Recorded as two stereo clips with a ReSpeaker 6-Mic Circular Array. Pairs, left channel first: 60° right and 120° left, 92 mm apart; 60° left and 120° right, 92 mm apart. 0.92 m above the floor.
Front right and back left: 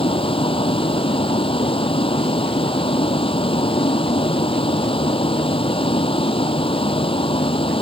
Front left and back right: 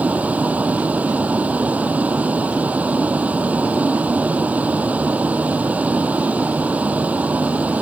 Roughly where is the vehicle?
Ahead right.